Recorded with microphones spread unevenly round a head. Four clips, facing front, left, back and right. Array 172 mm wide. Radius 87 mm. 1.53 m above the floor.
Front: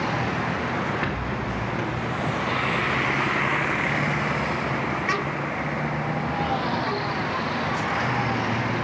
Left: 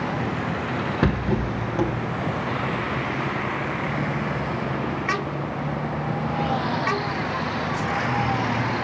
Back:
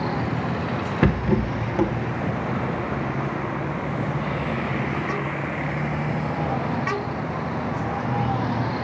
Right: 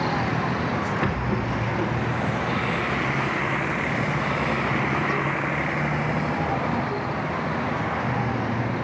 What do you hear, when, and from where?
1.0 s a rattle: 145° left, 0.7 m